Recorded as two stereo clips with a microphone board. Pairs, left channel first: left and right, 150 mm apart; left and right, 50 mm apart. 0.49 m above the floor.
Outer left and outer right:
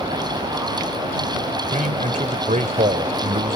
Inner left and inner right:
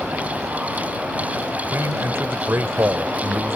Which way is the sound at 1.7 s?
55° right (ahead or behind).